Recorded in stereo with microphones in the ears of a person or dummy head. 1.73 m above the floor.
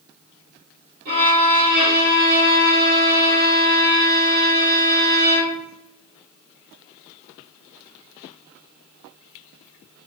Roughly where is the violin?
Right.